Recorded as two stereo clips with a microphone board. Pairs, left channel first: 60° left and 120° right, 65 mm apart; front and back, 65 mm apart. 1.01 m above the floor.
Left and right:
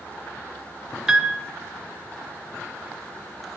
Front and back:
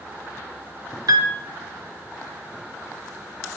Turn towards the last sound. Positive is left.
turn(degrees=160)